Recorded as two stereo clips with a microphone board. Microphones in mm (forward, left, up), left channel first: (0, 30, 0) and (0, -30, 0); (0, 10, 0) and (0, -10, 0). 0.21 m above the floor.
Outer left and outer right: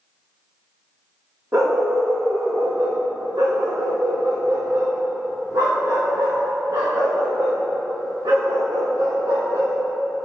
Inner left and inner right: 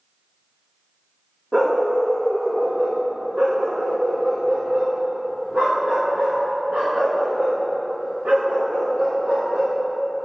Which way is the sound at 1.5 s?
50° right (ahead or behind).